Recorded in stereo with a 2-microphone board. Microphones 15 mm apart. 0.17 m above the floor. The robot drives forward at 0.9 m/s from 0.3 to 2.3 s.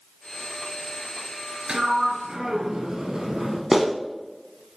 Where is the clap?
15° right (ahead or behind), 0.9 m.